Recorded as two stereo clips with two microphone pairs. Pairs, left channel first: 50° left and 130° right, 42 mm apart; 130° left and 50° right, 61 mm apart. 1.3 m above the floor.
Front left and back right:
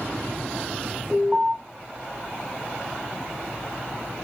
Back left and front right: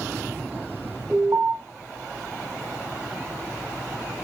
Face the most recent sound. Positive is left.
turn(degrees=-5)